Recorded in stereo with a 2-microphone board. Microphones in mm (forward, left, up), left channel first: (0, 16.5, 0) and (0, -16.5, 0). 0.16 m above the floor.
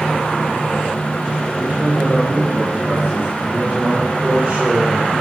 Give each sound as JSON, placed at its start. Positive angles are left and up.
{"t": 1.6, "sound": "a man speaking", "side_deg": -55, "distance_m": 3.0}